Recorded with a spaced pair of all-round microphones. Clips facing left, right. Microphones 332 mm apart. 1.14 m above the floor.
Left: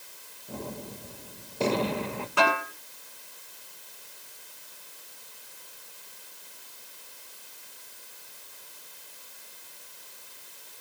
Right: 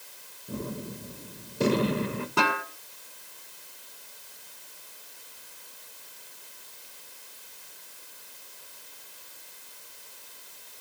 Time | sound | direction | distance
0.5 | a gunshot | 20° right (ahead or behind) | 1.4 m
2.4 | a snare drum | 50° right (ahead or behind) | 8.5 m